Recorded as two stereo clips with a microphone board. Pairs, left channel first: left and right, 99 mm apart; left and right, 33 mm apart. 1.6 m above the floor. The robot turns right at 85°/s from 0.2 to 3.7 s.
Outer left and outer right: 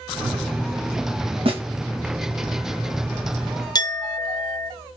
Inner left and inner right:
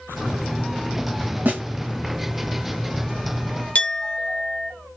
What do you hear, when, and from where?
1.4 s a snare drum: 65° right (ahead or behind), 1.0 m; by 1.6 s 75° right (ahead or behind), 1.0 m
3.8 s a clink: 45° left (ahead or behind), 0.7 m